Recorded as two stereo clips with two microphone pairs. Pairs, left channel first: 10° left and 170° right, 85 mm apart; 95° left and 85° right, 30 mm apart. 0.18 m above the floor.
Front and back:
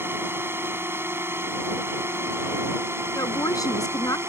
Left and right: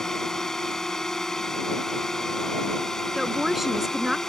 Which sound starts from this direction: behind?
A drone, at 0.0 s.